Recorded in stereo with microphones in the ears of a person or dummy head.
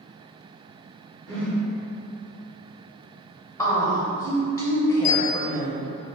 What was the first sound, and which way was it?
A whoosh, 65° right (ahead or behind).